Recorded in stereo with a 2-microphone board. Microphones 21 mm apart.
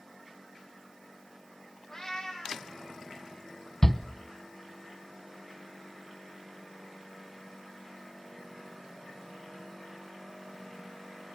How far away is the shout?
About 1.0 m.